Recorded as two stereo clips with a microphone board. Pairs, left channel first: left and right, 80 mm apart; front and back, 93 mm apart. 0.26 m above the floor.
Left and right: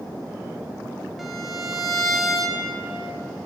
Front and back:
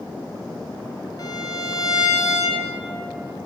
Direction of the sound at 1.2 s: Straight ahead.